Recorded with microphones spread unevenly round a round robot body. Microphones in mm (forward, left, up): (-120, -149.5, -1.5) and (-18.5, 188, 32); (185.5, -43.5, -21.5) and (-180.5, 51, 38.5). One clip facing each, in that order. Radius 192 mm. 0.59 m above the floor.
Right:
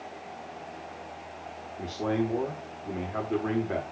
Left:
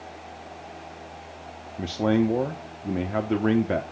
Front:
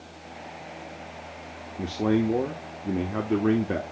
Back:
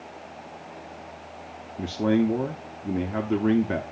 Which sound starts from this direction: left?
A man speaking, at 1.8 s.